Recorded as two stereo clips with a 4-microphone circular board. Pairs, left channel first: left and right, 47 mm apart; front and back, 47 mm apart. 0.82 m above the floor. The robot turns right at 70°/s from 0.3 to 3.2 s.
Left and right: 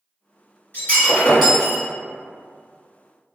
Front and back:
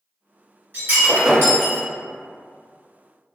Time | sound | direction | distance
0.7 | breaking glass | 135° left | 1.8 m